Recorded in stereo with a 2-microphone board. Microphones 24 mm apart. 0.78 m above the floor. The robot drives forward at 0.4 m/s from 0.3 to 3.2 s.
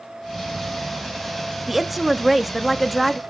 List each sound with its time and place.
1.7 s a woman speaking: 5° right (ahead or behind), 0.6 m